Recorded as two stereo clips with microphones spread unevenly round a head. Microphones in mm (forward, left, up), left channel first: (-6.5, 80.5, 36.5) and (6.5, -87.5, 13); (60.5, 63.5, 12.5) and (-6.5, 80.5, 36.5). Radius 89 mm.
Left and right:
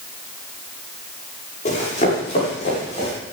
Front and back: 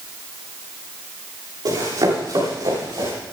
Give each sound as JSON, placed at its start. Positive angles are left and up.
{"t": 1.6, "sound": "running footsteps", "azimuth_deg": 145, "distance_m": 10.0}